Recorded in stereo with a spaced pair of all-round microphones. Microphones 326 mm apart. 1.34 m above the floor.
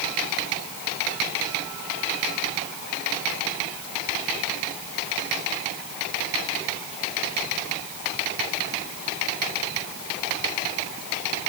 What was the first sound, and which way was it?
Only background noise.